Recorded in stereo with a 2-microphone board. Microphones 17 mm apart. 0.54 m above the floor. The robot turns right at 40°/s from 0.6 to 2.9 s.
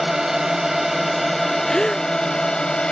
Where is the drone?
25° right; by 2.9 s 65° left.